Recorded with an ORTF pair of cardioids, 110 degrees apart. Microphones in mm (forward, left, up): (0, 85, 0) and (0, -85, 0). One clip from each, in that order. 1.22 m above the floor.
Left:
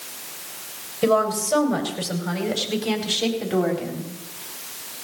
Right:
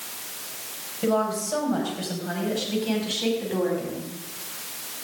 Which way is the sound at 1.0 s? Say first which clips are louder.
Left 5 dB; 60° left.